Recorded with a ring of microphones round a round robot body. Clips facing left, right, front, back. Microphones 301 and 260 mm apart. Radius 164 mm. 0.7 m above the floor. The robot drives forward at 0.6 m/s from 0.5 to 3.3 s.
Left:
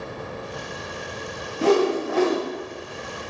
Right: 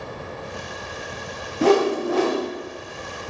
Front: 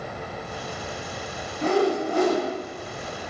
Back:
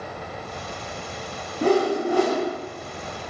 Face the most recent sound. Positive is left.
turn(degrees=-160)